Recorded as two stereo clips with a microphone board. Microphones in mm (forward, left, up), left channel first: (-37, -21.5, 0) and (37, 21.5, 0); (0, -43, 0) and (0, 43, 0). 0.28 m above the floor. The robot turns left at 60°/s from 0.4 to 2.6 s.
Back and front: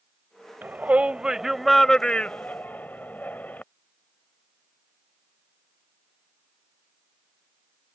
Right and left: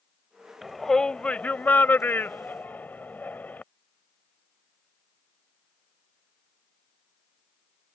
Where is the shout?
Straight ahead; by 3.6 s 115° right.